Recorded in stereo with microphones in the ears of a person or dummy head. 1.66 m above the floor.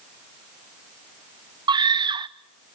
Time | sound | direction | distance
1.7 | a scream | 25° right (ahead or behind) | 0.6 m